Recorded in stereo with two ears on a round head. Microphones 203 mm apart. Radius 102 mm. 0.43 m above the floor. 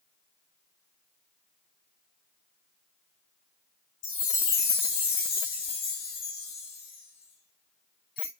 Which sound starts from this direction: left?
A chime, at 4.0 s.